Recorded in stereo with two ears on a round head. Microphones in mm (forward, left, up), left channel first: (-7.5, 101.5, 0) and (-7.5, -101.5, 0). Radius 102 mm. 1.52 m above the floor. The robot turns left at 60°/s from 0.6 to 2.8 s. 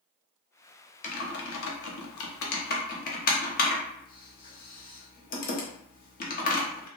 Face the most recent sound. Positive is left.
turn(degrees=40)  # may be behind; listen again after turning